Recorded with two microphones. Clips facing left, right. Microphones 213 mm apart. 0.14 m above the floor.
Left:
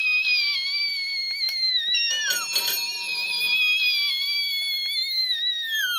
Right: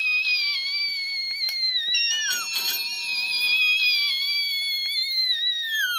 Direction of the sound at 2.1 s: 85° left.